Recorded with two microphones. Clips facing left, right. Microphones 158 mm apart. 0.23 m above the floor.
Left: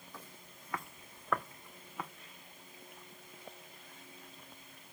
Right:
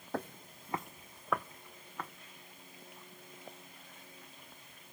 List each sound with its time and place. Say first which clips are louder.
0.1 s footsteps: right 16 dB; 70° right (ahead or behind), 0.5 m; by 2.1 s 5° left (ahead or behind), 1.5 m